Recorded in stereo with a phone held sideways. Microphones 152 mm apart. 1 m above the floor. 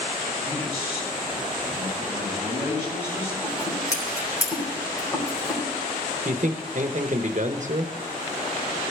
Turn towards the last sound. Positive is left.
turn(degrees=-55)  # may be behind; listen again after turning